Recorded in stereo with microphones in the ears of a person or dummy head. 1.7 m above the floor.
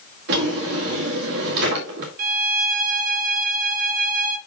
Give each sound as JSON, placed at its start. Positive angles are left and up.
{"t": 0.3, "sound": "a drawer", "side_deg": -60, "distance_m": 2.0}
{"t": 2.2, "sound": "a violin", "side_deg": -50, "distance_m": 1.2}